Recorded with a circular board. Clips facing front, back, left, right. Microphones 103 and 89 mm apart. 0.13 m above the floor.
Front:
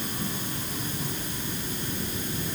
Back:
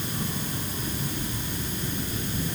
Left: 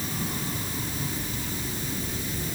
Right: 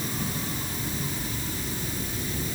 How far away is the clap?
I don't hear a clap.